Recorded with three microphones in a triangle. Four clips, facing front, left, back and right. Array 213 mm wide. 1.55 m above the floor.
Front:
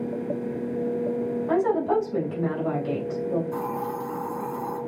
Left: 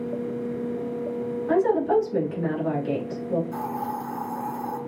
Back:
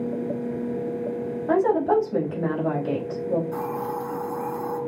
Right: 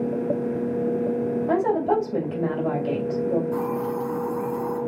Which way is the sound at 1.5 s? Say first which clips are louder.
Left 2 dB, back 3 dB; 135° right.